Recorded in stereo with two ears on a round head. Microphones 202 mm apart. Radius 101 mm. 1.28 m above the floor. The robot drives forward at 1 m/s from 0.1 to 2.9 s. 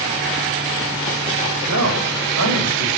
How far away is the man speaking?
About 7 m.